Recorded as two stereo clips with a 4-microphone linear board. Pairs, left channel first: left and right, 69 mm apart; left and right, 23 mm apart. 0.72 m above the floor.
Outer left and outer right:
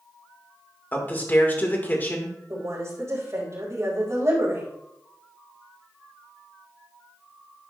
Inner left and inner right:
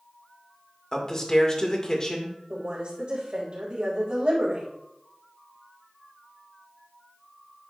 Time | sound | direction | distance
0.9 | a man speaking | 30° left (ahead or behind) | 1.8 m
2.5 | a woman speaking | 50° right (ahead or behind) | 3.5 m